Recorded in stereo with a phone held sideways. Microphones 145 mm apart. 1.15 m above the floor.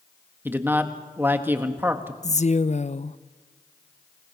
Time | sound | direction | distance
0.5 | a man speaking | 15° right (ahead or behind) | 1.6 m
2.2 | a woman speaking | 50° left (ahead or behind) | 0.7 m